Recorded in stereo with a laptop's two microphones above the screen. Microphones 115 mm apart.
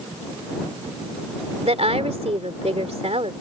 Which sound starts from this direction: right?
A woman speaking, at 1.6 s.